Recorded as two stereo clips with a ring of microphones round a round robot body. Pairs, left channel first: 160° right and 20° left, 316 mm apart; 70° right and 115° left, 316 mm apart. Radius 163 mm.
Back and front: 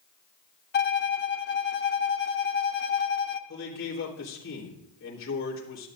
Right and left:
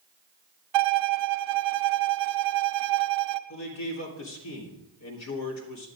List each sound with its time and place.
0.7 s a violin: 140° left, 0.7 m
3.5 s a man speaking: 105° right, 3.5 m